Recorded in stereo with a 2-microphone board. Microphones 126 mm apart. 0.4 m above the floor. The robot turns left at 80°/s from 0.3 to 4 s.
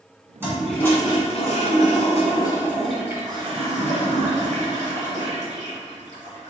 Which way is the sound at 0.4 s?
160° right.